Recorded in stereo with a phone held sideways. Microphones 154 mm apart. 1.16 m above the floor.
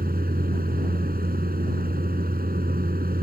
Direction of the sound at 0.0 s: 75° right (ahead or behind).